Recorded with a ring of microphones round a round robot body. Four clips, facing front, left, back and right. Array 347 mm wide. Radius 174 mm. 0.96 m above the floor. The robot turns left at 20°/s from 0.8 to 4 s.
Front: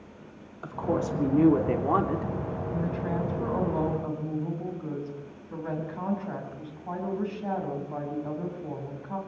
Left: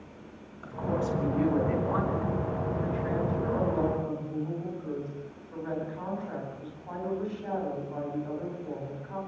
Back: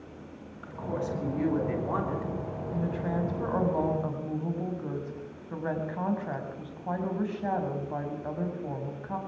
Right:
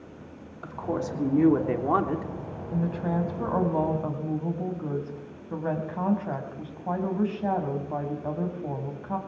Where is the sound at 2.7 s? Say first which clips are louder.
Right 7 dB, even; 85° right, 6 m; by 9.2 s 110° right, 6 m.